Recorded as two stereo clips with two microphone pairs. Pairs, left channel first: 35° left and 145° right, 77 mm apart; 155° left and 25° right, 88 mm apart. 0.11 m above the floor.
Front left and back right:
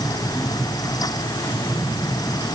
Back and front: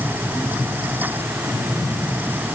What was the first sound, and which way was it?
Only background noise.